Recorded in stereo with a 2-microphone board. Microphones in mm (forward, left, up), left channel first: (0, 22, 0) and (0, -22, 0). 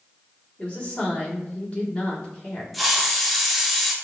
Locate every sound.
0.6 s a woman speaking: 40° left (ahead or behind), 1.6 m
2.7 s a hiss: centre (ahead or behind), 0.6 m